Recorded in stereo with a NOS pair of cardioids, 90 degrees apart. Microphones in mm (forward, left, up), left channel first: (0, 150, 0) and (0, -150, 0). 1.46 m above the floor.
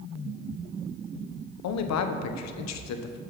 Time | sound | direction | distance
1.6 | a man speaking | 65° left | 0.9 m